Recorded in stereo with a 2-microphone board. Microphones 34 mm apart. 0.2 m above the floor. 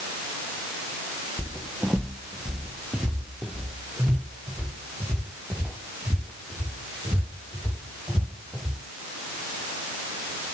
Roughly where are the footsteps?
Centre.